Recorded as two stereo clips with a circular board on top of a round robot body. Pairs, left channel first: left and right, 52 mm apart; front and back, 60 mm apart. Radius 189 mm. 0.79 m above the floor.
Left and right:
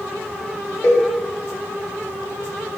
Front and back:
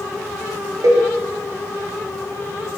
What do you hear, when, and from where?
0.8 s a cowbell: 145° left, 0.9 m